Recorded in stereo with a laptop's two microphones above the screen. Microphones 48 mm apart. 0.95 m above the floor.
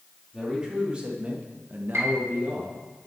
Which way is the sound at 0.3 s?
15° right (ahead or behind).